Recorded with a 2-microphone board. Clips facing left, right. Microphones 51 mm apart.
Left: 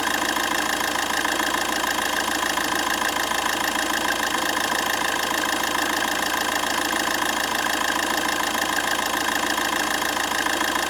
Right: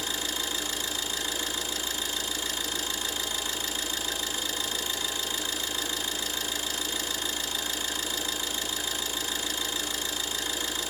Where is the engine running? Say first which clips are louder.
Left 11 dB; 70° left (ahead or behind), 0.8 m.